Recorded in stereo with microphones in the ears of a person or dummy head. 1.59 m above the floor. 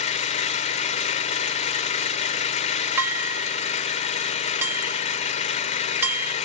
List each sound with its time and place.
0.0 s an engine running: 35° left (ahead or behind), 0.9 m
3.0 s dishes clattering: 15° right (ahead or behind), 2 m